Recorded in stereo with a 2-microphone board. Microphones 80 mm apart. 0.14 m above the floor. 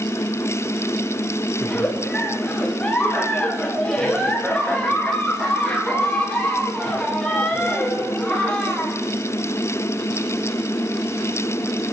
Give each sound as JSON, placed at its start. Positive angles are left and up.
{"t": 1.6, "sound": "a giggle", "side_deg": 10, "distance_m": 6.0}